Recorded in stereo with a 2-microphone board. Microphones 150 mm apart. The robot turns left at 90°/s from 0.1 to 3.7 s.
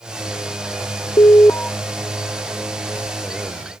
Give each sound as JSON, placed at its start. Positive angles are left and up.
{"t": 1.2, "sound": "an alarm", "azimuth_deg": 50}